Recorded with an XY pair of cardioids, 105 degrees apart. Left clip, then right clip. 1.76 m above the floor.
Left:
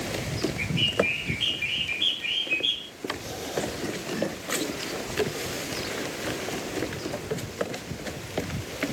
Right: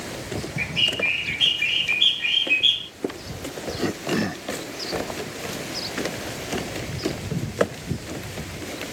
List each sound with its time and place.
0.6 s a bird: 55° right, 0.9 m